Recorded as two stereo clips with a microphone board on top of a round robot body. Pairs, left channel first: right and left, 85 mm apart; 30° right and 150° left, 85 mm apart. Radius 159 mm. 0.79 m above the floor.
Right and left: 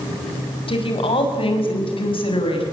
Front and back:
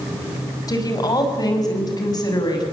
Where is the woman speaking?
75° right, 6 m.